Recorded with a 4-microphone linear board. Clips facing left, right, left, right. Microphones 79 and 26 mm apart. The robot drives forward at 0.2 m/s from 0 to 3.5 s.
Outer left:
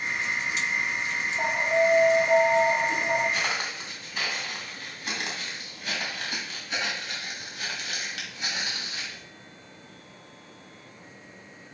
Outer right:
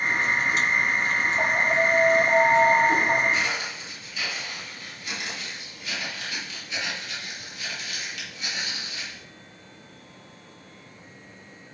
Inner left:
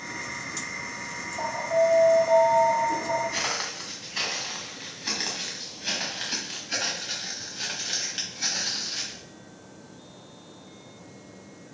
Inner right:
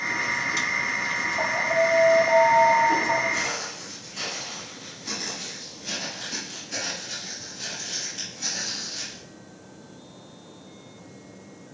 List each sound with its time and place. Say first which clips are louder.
1.4 s an alarm: outer left 2 dB, even; 50° right (ahead or behind), 2.5 m; by 3.2 s 55° right (ahead or behind), 2.5 m
3.3 s footsteps: outer right 2 dB, inner right 1 dB; 50° left (ahead or behind), 4 m; by 9.2 s 40° left (ahead or behind), 9 m